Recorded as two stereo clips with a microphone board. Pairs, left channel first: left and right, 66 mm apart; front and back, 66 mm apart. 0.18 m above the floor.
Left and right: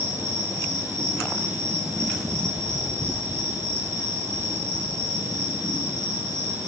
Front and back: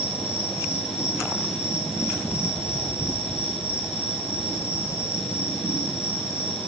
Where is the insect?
50° right, 8.5 m.